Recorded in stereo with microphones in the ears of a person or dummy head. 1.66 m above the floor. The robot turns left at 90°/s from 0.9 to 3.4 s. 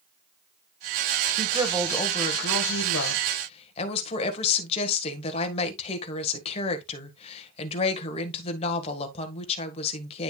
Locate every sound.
1.4 s a woman speaking: 145° right, 1.5 m; by 10.3 s 35° left, 1.5 m